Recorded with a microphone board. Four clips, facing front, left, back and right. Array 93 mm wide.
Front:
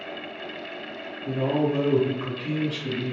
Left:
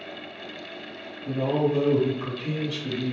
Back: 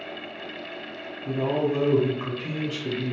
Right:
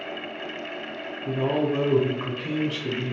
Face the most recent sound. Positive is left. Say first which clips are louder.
# even, front 1 dB
turn(degrees=-110)